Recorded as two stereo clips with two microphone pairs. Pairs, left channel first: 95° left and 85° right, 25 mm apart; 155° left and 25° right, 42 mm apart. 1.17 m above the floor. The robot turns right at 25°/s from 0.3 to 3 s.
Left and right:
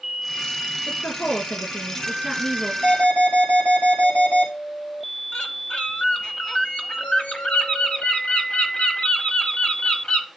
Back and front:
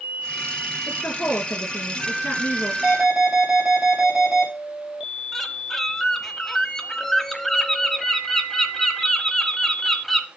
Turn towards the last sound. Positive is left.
turn(degrees=80)